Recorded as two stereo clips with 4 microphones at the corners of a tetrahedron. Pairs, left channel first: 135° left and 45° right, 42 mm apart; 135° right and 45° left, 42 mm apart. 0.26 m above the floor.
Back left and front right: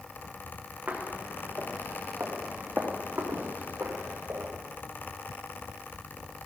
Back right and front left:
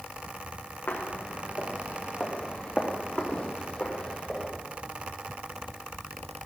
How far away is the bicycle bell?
I don't hear a bicycle bell.